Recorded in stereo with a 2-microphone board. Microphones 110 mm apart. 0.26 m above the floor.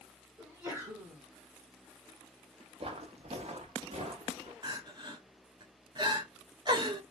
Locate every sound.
0.4 s a sneeze: 25° right (ahead or behind), 1.6 m
2.8 s footsteps: 55° right (ahead or behind), 0.6 m; by 4.5 s 70° right (ahead or behind), 1.3 m
4.6 s crying: 45° right (ahead or behind), 0.8 m